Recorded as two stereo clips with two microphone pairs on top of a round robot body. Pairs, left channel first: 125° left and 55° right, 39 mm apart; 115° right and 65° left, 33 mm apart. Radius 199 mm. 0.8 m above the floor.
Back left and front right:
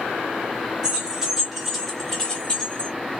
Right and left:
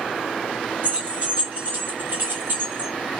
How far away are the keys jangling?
About 1.4 m.